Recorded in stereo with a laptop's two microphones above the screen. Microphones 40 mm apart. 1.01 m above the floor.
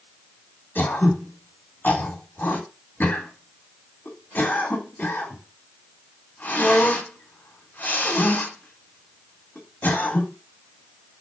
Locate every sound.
0.8 s throat clearing: 50° left (ahead or behind), 1.7 m